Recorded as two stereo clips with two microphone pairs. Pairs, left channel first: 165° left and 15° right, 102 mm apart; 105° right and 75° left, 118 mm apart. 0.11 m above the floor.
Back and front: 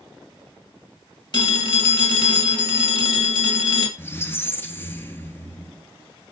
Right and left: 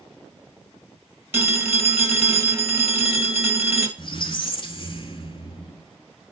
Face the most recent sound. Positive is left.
turn(degrees=-130)